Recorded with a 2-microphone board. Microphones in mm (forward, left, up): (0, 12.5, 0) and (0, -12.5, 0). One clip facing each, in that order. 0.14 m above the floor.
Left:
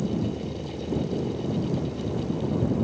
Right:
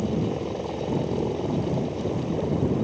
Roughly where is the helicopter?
Right.